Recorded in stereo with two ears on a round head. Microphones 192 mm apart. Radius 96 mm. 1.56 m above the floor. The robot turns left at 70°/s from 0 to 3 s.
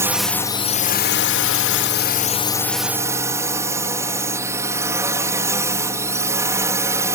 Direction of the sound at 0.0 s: 165° right.